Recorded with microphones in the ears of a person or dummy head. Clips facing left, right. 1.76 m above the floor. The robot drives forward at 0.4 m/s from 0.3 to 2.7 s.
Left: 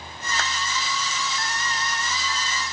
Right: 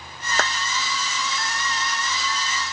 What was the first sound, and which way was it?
A clap, 45° right (ahead or behind).